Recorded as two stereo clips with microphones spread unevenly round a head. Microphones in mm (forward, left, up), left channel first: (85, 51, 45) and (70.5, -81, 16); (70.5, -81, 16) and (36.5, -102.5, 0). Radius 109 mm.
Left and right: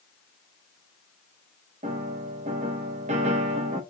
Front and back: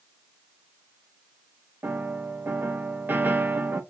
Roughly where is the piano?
Behind right.